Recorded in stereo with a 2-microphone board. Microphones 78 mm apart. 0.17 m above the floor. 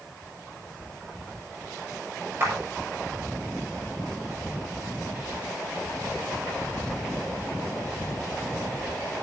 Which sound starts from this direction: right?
A clap, at 2.4 s.